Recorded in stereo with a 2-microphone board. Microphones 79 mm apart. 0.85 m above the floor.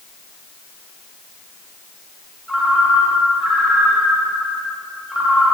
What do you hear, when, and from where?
2.5 s a ringtone: 10° right (ahead or behind), 1.9 m